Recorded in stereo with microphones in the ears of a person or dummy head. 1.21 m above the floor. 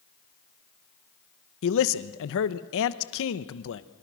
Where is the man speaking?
65° left (ahead or behind), 1.0 m.